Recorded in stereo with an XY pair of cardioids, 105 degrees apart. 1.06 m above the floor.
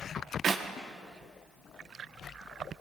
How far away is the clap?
About 1.3 m.